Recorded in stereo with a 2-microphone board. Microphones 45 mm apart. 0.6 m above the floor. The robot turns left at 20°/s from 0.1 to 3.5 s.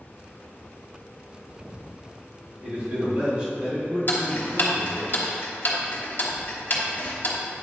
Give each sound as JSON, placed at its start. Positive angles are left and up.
{"t": 2.6, "sound": "a man speaking", "side_deg": -50, "distance_m": 2.0}
{"t": 4.1, "sound": "ticking", "side_deg": 45, "distance_m": 1.1}